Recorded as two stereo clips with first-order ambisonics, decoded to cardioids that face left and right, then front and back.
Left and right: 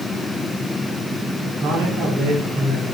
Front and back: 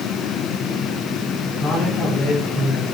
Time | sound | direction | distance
1.6 | a man speaking | 60° right | 2.5 m